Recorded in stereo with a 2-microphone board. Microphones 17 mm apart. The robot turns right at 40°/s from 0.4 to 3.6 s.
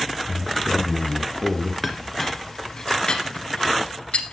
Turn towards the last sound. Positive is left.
turn(degrees=70)  # may be behind; listen again after turning